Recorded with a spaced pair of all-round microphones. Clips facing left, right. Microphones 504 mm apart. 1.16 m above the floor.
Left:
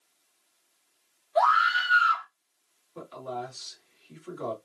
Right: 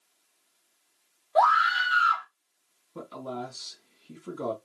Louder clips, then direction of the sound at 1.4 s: Right 1 dB; 65° right (ahead or behind).